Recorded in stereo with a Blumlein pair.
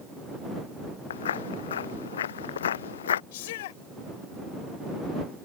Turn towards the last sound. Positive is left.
turn(degrees=55)